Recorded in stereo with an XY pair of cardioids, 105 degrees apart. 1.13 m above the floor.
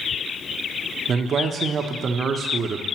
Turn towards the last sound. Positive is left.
turn(degrees=-50)